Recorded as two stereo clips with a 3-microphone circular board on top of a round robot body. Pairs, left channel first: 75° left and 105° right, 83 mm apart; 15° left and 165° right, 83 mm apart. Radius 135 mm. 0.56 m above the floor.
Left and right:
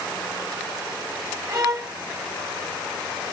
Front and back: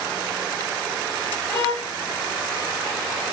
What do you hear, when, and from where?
1.5 s a violin: 60° right, 0.8 m